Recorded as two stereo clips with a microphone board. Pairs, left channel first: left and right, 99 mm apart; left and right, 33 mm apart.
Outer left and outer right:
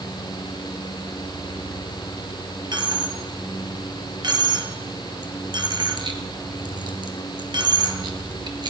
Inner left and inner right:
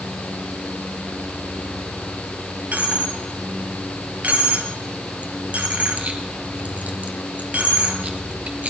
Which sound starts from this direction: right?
A dropped coin, at 2.7 s.